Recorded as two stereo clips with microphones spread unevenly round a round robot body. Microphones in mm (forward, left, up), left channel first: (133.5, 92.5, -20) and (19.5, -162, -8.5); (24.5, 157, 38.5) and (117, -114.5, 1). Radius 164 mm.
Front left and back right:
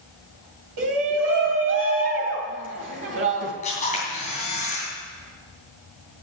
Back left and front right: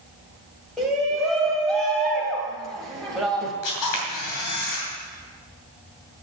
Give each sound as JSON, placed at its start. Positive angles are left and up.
{"t": 0.8, "sound": "a shout", "azimuth_deg": -155, "distance_m": 2.0}
{"t": 3.6, "sound": "a camera shutter", "azimuth_deg": 130, "distance_m": 3.0}